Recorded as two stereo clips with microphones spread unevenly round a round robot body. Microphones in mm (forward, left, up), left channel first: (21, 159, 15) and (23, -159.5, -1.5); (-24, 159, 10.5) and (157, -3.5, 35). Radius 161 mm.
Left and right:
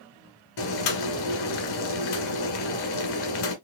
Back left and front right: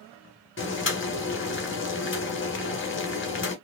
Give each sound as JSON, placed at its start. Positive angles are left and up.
{"t": 0.6, "sound": "boiling", "azimuth_deg": 95, "distance_m": 1.5}